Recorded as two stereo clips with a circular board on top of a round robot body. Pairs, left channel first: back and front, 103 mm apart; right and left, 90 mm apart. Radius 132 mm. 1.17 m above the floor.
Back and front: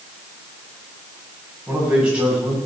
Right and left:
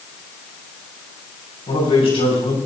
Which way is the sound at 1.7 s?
80° right.